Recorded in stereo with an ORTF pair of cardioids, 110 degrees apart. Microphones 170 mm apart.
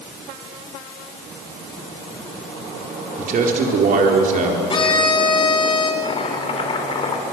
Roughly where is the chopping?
Ahead left.